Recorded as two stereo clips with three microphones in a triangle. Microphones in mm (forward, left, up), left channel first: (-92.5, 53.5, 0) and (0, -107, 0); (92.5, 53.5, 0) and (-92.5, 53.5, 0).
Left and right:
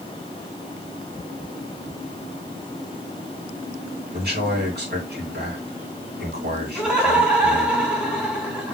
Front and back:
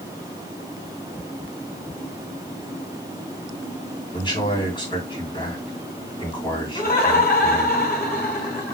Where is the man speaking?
60° right, 2.5 m.